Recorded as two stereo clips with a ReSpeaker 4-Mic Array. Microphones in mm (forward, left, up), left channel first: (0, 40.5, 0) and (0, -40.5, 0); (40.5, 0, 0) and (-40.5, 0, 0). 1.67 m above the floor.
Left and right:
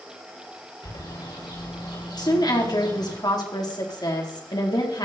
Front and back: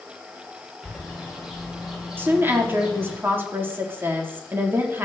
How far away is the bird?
About 7 m.